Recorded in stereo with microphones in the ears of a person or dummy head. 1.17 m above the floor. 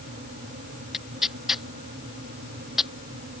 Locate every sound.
0.9 s tearing paper: 5° right (ahead or behind)